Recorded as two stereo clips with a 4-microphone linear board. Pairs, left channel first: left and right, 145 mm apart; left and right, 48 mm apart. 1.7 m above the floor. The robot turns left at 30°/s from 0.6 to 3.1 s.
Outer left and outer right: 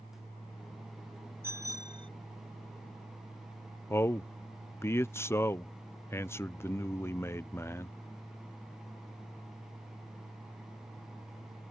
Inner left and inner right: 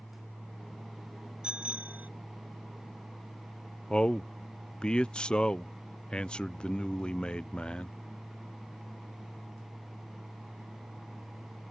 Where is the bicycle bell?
15° right (ahead or behind); by 2.1 s 35° right (ahead or behind).